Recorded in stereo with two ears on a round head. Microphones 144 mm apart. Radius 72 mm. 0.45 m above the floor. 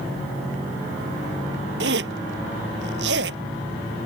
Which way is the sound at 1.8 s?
80° right.